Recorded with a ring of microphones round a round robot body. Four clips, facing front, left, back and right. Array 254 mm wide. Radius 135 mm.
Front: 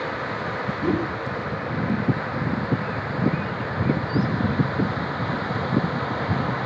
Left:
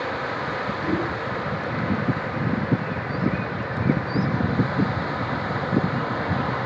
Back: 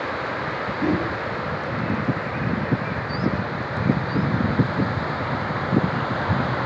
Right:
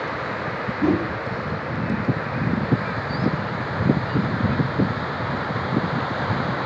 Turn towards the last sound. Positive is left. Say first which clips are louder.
# right 6 dB, back 1 dB
turn(degrees=-120)